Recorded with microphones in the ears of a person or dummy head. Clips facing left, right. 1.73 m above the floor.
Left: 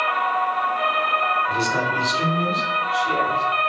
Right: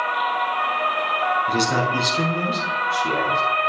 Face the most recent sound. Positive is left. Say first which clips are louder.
# right 4 dB
turn(degrees=-65)  # may be behind; listen again after turning